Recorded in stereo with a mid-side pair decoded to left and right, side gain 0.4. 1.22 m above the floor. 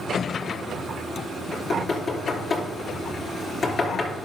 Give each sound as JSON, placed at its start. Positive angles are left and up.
{"t": 1.5, "sound": "knocking", "azimuth_deg": 40, "distance_m": 3.5}